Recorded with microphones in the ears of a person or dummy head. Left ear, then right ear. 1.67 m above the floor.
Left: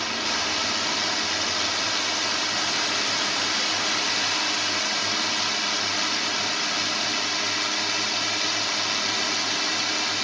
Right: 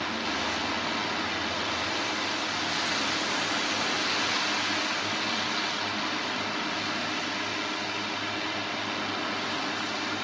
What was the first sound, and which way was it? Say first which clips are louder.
A drone: left 4 dB; 70° left (ahead or behind).